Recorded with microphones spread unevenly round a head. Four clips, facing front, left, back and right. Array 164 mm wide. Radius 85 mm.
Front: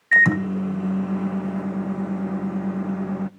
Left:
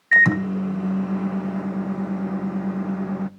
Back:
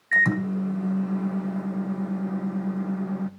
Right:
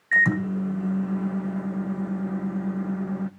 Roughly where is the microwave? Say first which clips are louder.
Left 4 dB, front 4 dB; ahead.